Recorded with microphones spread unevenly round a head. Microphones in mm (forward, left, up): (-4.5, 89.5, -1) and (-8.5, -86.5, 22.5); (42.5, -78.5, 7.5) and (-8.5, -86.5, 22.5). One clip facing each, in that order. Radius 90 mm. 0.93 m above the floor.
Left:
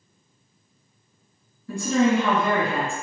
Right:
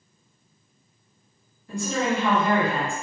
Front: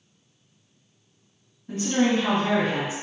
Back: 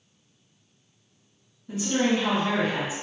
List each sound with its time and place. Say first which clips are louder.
1.7 s a woman speaking: left 5 dB, front 2 dB; 85° left, 1.7 m